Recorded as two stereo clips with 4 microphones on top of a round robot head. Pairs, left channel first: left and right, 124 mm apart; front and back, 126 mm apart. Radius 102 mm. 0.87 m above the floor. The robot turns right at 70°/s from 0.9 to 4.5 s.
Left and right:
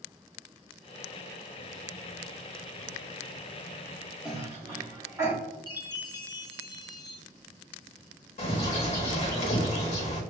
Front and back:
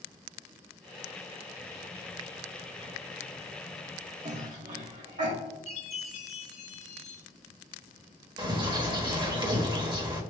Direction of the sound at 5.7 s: 35° left.